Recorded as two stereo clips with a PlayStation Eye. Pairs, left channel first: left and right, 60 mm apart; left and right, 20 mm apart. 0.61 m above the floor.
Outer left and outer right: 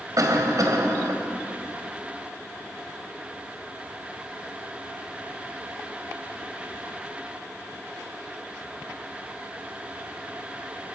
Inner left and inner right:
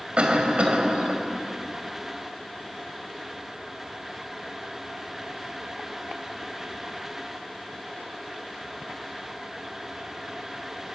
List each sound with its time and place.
0.2 s a cough: 70° right (ahead or behind), 3 m